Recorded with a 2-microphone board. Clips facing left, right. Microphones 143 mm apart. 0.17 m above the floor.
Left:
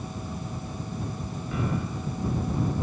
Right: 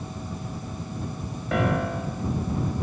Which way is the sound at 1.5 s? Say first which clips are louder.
Right 6 dB; 70° right (ahead or behind).